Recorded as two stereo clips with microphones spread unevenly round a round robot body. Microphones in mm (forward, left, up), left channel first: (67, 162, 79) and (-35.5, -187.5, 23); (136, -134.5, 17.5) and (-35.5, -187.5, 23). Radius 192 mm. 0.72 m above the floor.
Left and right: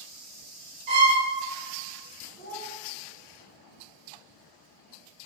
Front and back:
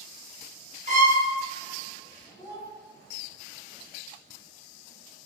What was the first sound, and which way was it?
A violin, 110° right.